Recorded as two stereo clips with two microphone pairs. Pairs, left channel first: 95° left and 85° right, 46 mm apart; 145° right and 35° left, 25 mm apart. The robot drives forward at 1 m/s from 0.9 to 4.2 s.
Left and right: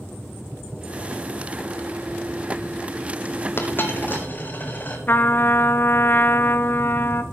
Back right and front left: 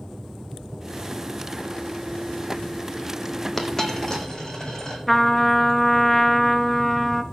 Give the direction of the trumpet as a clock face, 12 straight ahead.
8 o'clock.